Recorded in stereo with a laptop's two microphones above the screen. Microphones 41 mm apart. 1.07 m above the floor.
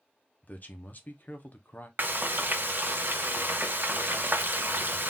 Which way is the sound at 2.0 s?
55° right (ahead or behind).